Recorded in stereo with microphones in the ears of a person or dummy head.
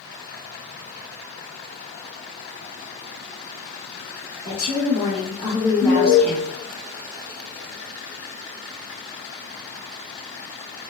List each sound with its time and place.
4.5 s a woman speaking: 50° left (ahead or behind), 1.4 m; by 6.5 s 15° right (ahead or behind), 0.7 m
5.8 s an alarm: 35° left (ahead or behind), 1.4 m